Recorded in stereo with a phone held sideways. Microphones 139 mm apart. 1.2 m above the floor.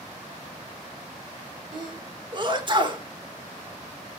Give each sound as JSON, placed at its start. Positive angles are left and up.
{"t": 1.7, "sound": "a sneeze", "side_deg": -35, "distance_m": 2.0}